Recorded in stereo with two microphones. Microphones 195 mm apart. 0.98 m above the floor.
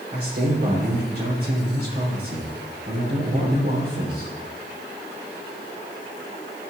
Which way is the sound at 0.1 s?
55° right (ahead or behind).